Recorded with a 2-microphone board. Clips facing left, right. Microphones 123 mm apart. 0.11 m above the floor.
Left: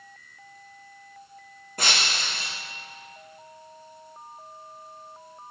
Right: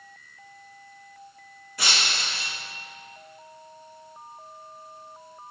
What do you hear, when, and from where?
1.8 s breaking glass: 50° left (ahead or behind), 3 m